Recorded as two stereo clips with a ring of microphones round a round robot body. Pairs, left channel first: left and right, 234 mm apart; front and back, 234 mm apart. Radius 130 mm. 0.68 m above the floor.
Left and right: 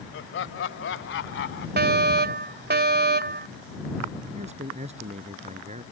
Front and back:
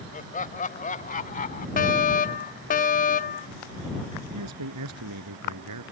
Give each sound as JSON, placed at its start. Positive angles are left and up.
{"t": 0.1, "sound": "laughter", "azimuth_deg": 55}
{"t": 1.8, "sound": "a fire alarm", "azimuth_deg": -50}
{"t": 4.3, "sound": "a man speaking", "azimuth_deg": -155}